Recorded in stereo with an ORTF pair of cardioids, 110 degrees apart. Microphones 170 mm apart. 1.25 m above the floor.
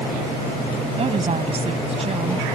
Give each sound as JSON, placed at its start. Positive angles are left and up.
{"t": 1.0, "sound": "a woman speaking", "azimuth_deg": -35}